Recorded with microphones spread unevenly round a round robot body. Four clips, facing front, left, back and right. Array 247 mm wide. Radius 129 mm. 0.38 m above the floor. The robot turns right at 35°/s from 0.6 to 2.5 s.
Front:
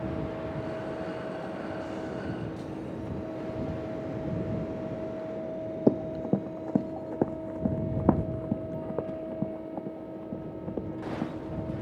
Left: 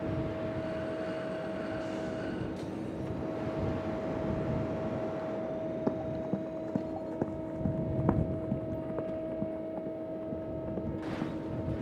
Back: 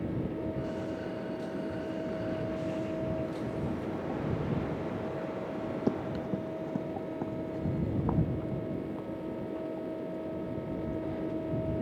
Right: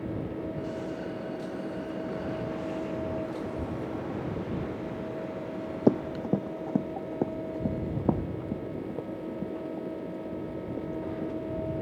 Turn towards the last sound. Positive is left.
turn(degrees=-5)